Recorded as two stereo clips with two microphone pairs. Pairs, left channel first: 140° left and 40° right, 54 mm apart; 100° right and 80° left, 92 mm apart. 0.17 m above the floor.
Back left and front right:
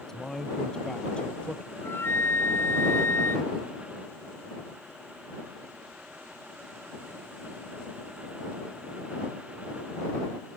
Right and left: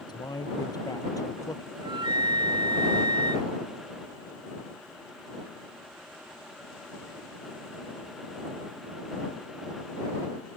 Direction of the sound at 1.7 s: 105° left.